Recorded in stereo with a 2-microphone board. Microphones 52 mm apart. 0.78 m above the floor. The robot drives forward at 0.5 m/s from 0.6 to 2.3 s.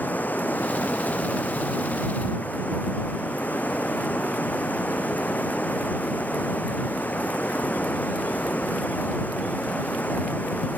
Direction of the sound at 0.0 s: 35° left (ahead or behind).